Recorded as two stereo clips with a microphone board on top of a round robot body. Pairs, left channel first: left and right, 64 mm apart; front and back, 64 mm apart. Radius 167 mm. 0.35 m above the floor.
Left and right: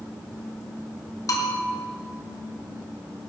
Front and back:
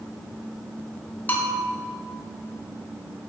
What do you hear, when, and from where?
1.3 s a bell: 60° left, 2.5 m